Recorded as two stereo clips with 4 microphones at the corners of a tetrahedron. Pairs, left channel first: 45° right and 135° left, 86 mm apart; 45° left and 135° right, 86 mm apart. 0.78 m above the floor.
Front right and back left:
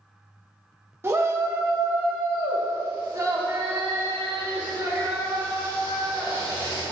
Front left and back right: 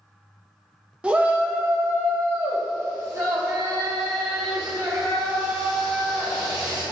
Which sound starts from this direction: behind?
A shout, at 1.0 s.